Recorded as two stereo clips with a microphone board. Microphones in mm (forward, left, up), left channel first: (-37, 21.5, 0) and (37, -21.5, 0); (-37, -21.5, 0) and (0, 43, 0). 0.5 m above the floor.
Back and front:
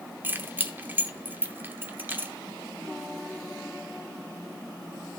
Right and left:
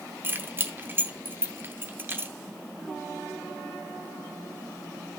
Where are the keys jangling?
20° left, 0.8 m.